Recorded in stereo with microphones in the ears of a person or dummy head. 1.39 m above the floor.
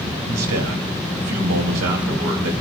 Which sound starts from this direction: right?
A man speaking, at 0.3 s.